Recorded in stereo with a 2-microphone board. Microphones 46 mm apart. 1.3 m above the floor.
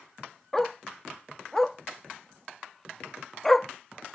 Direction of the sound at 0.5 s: 5° left (ahead or behind).